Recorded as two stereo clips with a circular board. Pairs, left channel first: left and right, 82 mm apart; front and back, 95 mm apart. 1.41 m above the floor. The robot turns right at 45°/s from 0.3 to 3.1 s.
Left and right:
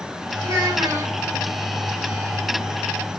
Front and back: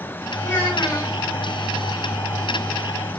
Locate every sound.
0.4 s a child speaking: 70° right, 1.9 m; by 1.2 s 40° right, 1.9 m